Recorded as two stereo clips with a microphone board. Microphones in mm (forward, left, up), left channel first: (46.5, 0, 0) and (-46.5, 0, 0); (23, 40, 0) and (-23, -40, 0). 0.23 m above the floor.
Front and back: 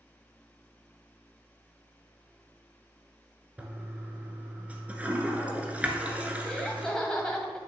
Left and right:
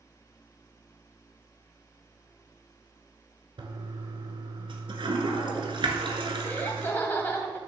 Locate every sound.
3.6 s a toilet flushing: 105° right, 1.1 m
6.4 s laughter: 70° left, 1.0 m